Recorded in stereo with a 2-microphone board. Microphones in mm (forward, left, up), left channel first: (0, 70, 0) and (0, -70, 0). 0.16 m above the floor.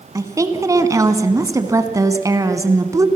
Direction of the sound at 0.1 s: 25° right (ahead or behind).